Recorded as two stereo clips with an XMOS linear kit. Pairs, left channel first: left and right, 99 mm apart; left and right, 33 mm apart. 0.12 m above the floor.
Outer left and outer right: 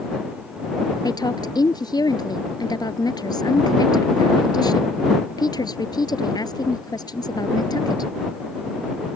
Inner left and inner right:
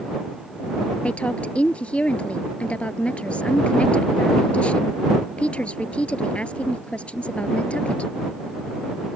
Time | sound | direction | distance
1.0 | a woman speaking | 45° left (ahead or behind) | ?